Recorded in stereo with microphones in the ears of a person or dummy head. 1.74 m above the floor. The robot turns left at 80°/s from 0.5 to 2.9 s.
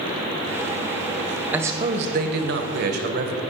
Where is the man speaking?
10° right, 1.1 m; by 3.4 s 120° right, 1.1 m.